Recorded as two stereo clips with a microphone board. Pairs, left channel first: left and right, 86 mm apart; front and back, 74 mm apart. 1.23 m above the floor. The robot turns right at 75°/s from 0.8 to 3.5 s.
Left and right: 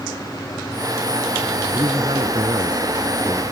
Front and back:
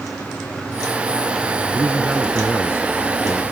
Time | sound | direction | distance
1.7 | a man speaking | 135° right | ?